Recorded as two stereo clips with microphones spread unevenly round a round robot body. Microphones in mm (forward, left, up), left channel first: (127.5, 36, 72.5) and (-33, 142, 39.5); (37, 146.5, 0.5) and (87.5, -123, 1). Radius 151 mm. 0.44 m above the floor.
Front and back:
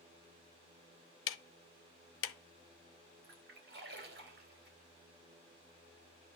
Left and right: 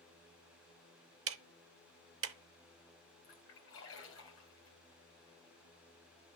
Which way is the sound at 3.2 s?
145° left.